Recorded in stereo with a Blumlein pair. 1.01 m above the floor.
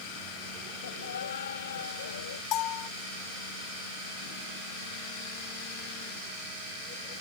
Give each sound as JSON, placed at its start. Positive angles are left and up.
{"t": 0.8, "sound": "laughter", "azimuth_deg": 70}
{"t": 2.5, "sound": "a bell", "azimuth_deg": 35}